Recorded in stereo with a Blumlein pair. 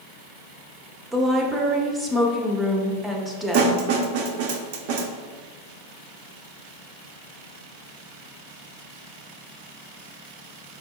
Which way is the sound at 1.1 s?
10° right.